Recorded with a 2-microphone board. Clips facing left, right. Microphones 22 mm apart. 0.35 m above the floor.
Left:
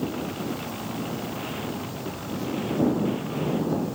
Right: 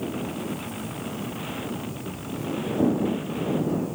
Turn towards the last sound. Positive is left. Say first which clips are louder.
# left 1 dB
turn(degrees=45)  # may be behind; listen again after turning